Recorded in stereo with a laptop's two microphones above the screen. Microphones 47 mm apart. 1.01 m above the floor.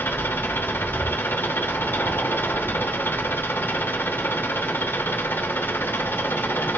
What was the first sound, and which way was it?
An engine running, 50° left (ahead or behind).